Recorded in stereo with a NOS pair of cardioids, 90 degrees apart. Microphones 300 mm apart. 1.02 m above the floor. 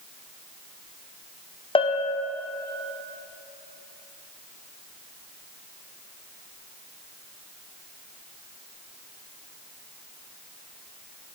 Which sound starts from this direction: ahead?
A bell, at 1.8 s.